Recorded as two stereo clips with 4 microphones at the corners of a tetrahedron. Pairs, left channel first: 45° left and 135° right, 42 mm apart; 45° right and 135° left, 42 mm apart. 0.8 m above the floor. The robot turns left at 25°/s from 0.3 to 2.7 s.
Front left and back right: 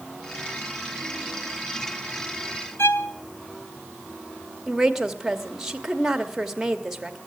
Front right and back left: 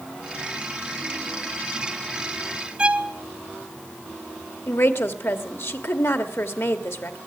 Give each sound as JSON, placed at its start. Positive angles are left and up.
{"t": 2.8, "sound": "a violin", "azimuth_deg": 70, "distance_m": 0.6}
{"t": 4.7, "sound": "a woman speaking", "azimuth_deg": -55, "distance_m": 1.1}